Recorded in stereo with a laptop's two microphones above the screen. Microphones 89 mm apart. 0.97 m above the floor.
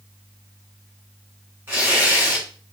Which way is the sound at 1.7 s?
25° right (ahead or behind).